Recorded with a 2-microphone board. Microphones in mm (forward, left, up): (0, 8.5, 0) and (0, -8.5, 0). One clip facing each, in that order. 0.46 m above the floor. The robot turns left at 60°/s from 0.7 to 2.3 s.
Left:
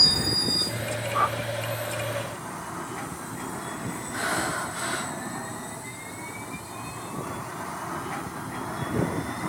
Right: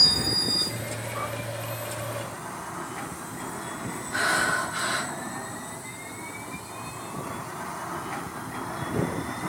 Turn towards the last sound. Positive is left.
turn(degrees=-45)  # may be behind; listen again after turning